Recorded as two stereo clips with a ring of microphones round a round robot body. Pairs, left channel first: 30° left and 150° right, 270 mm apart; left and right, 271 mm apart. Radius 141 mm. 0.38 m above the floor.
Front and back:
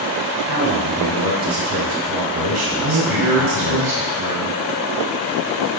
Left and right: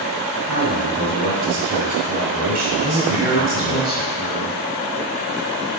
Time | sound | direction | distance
0.5 | a man speaking | 145° right | 2.5 m
2.8 | a man speaking | 175° right | 2 m